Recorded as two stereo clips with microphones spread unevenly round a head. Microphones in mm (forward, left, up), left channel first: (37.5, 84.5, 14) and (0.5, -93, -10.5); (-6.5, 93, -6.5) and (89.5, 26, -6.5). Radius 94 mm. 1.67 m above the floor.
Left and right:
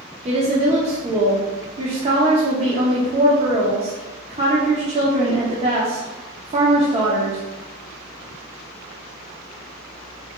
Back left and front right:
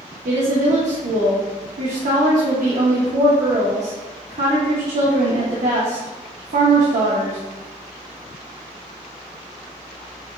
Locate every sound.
0.2 s a woman speaking: 45° right, 0.8 m